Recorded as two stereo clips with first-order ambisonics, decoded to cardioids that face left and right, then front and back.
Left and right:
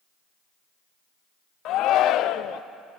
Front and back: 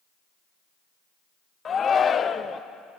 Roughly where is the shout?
Ahead left.